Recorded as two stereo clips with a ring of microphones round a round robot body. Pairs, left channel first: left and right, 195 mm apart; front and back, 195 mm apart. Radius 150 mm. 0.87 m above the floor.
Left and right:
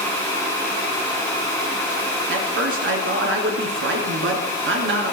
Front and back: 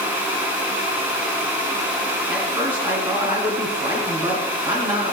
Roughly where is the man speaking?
Behind right.